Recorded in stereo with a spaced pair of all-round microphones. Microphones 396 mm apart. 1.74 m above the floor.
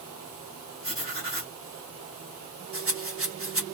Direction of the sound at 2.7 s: 35° right (ahead or behind).